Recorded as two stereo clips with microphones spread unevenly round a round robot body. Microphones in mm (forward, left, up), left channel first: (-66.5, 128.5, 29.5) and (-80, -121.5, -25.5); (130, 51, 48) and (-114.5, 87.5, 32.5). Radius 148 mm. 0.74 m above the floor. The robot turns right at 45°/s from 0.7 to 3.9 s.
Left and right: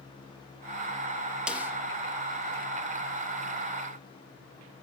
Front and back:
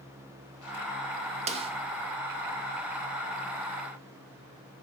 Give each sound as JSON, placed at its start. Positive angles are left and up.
{"t": 1.5, "sound": "a snare drum", "azimuth_deg": -155, "distance_m": 1.1}